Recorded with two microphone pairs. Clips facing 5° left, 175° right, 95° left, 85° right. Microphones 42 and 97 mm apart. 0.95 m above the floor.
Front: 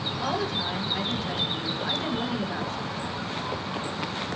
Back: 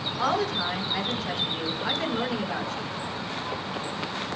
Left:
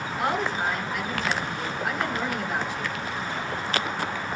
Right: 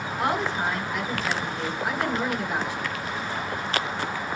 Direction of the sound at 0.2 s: 160° right.